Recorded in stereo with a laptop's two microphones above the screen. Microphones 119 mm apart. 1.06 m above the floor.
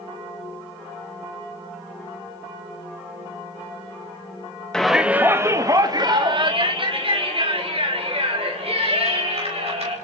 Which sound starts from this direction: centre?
A shout, at 4.7 s.